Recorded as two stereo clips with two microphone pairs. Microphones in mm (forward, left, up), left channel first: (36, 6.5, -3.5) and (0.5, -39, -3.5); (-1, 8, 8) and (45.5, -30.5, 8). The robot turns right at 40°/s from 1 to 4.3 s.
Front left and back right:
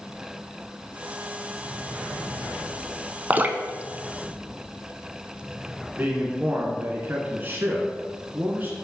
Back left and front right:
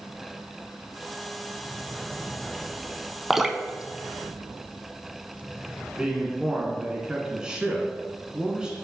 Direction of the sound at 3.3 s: 120° right.